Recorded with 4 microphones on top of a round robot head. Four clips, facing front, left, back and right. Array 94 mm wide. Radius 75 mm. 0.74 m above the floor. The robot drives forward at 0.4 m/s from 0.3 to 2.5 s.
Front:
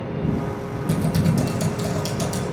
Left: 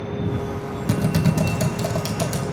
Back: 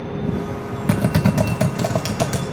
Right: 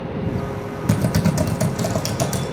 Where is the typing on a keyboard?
160° right, 1.0 m; by 2.4 s 170° right, 1.6 m.